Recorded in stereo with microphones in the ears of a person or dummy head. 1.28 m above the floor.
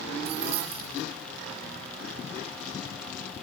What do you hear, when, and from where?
0.2 s keys jangling: 35° right (ahead or behind), 3 m